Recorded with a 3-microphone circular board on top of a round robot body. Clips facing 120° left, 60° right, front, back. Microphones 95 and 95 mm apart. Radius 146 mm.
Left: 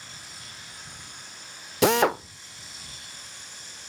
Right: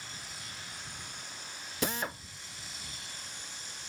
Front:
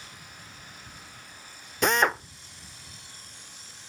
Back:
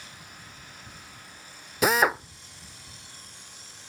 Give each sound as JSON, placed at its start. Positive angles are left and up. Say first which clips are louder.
{"t": 1.8, "sound": "a drill", "louder": "left 15 dB, back 1 dB", "azimuth_deg": 95}